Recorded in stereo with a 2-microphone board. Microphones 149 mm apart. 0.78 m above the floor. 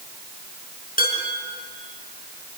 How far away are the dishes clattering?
About 5.5 m.